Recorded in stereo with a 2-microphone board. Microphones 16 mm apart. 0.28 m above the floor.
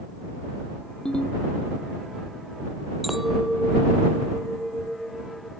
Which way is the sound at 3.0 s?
5° right (ahead or behind).